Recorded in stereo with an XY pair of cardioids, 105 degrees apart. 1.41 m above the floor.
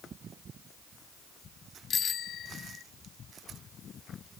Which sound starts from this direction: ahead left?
A bicycle bell, at 1.9 s.